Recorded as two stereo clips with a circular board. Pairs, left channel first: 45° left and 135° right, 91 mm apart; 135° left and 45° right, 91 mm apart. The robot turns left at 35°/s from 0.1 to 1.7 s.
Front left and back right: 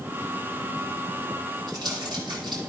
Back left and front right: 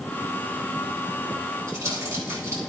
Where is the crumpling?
100° right, 6 m.